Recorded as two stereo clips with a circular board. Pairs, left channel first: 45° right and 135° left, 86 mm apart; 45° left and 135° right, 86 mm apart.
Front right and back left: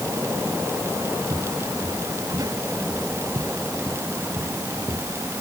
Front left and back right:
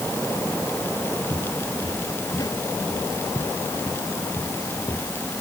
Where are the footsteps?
90° left; by 5.1 s 95° left.